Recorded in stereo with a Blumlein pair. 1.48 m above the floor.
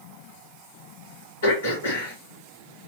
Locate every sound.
1.4 s throat clearing: 60° left, 2 m